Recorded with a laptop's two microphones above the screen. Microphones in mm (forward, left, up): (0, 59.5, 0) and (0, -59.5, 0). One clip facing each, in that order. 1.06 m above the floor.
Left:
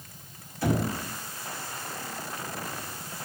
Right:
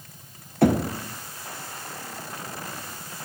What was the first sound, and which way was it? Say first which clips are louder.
Knocking: right 7 dB; 65° right (ahead or behind).